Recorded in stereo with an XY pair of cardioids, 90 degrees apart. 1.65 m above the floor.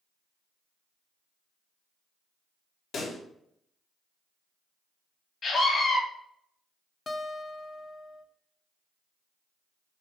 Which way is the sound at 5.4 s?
60° left.